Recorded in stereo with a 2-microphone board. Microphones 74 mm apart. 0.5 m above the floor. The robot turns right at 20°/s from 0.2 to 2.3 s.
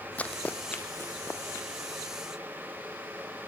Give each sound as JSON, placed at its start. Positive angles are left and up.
{"t": 0.2, "sound": "running footsteps", "side_deg": 20, "distance_m": 1.0}